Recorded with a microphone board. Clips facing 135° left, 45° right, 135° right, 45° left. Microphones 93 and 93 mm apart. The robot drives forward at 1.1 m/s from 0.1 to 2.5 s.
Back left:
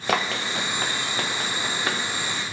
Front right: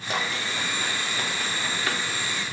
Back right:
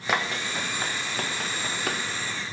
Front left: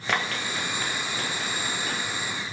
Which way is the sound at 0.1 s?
145° left.